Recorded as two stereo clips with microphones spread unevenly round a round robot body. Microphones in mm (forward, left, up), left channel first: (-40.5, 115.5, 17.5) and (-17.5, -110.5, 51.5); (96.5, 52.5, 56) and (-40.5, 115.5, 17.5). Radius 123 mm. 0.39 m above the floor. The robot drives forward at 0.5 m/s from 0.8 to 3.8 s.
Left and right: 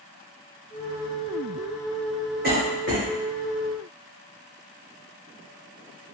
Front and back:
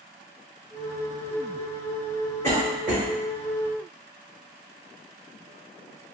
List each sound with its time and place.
2.4 s a cough: 110° right, 1.1 m; by 3.0 s 130° right, 1.2 m